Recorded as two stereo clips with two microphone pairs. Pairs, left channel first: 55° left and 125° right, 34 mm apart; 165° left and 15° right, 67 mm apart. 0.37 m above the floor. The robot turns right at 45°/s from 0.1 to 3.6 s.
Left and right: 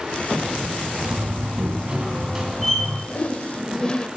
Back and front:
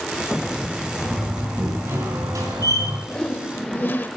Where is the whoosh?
90° left, 0.8 m; by 4.1 s 115° left, 0.8 m.